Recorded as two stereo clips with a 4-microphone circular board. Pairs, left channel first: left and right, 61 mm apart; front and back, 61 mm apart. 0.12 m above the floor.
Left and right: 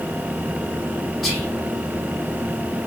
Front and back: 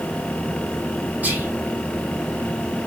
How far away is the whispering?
About 1.6 m.